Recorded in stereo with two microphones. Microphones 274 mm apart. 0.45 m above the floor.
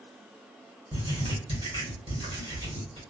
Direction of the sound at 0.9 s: 20° right (ahead or behind).